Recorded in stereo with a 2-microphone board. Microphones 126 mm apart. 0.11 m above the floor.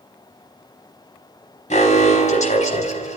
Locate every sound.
1.7 s an alarm: 70° left (ahead or behind), 5 m